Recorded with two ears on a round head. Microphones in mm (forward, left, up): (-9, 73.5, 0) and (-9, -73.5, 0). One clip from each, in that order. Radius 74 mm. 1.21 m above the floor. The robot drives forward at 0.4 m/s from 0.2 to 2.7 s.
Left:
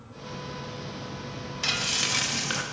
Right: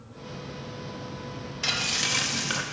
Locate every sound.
1.6 s frying: 5° left (ahead or behind), 0.6 m